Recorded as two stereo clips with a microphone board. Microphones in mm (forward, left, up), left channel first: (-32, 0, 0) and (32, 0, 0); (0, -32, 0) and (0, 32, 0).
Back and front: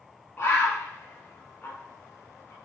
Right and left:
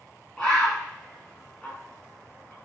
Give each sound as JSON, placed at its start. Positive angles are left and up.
{"t": 0.4, "sound": "a bird", "azimuth_deg": -160, "distance_m": 1.1}